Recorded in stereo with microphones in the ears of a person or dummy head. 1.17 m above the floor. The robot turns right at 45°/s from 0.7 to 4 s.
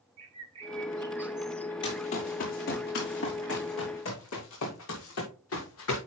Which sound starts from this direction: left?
Running footsteps, at 1.8 s.